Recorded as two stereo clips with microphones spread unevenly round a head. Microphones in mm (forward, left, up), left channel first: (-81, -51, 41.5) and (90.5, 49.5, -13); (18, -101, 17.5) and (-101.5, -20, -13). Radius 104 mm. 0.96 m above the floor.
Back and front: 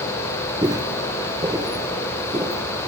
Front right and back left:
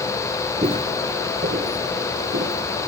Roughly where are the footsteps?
Behind left.